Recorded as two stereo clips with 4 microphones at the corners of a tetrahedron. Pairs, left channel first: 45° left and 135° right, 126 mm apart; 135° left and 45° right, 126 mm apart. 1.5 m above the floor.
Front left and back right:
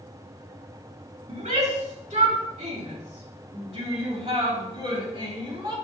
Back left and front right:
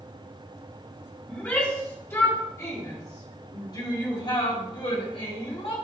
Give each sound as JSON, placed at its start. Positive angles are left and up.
{"t": 1.3, "sound": "a shout", "azimuth_deg": -150, "distance_m": 3.5}